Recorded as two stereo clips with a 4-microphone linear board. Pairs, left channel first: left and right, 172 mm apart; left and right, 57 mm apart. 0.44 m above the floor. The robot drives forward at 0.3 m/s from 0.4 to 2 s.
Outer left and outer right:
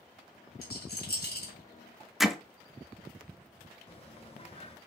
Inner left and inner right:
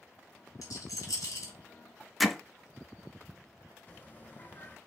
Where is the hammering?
Centre (ahead or behind), 0.6 m.